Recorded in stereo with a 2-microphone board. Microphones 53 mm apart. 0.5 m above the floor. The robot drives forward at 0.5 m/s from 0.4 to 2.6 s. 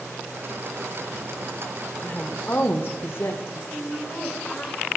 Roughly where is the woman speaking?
Left.